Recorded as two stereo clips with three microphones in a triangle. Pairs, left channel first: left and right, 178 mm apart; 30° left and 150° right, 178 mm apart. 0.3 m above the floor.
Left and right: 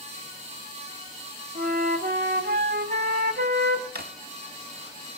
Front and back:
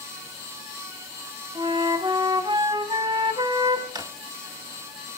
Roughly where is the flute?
Right.